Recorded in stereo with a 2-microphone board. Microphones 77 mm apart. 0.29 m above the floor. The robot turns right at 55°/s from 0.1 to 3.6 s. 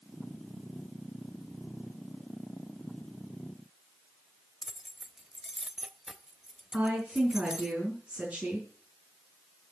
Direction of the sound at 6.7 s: 15° right (ahead or behind).